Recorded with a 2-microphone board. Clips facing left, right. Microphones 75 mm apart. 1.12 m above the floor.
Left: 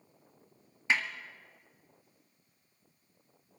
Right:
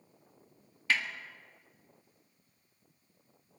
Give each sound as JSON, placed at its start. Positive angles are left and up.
{"t": 0.9, "sound": "a snare drum", "side_deg": 20, "distance_m": 1.8}